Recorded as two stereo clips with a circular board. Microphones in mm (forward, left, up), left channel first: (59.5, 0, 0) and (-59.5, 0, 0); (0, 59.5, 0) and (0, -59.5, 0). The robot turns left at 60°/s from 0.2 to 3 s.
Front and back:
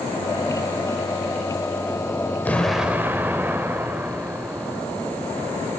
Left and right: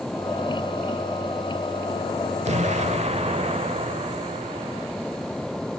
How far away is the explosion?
About 1.2 m.